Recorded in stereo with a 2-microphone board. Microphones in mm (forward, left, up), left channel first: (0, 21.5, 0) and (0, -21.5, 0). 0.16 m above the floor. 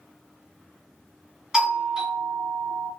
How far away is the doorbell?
About 1.7 m.